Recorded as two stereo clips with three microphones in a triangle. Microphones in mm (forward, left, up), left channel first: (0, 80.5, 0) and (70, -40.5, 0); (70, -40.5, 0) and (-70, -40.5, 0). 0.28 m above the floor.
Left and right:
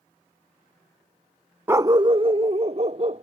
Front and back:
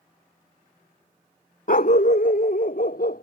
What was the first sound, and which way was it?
A dog barking, 15° left.